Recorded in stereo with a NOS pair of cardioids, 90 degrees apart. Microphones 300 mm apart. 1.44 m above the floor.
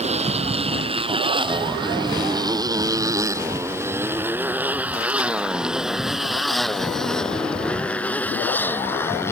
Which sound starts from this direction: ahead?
A motorcycle, at 0.0 s.